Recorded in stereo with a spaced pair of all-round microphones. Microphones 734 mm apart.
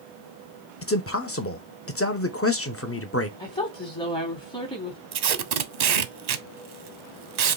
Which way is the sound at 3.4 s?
5° left (ahead or behind).